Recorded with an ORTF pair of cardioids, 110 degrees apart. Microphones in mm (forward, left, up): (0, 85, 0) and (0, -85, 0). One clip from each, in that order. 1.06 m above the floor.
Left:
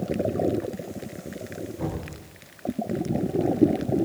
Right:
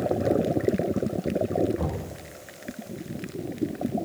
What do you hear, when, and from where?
1.8 s knocking: 40° right, 9.5 m